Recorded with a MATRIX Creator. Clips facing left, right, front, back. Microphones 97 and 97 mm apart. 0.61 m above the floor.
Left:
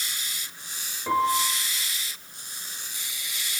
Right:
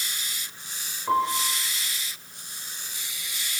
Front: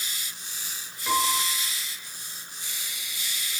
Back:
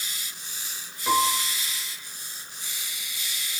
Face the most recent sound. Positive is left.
turn(degrees=105)